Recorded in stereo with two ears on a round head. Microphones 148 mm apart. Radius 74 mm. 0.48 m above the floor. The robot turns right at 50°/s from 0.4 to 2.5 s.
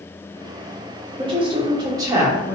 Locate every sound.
1.2 s a woman speaking: 85° right, 0.8 m; by 2.5 s 20° right, 0.8 m